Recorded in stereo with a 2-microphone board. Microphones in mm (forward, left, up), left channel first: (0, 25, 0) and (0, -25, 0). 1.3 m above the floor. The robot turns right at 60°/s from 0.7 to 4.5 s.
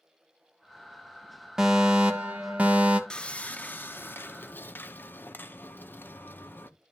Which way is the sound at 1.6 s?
15° right (ahead or behind).